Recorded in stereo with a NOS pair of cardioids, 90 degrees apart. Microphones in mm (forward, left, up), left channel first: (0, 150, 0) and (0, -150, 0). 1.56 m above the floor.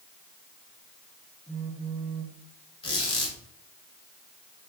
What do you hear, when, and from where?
1.5 s a phone buzzing: 5° left, 3 m
2.8 s a squeak: 20° left, 4 m